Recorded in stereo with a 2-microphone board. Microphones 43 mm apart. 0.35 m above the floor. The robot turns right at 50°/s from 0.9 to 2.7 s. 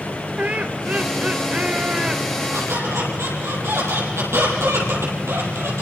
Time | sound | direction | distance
0.4 | laughter | 30° right (ahead or behind) | 1.5 m
2.5 | a squeak | 80° right | 6.5 m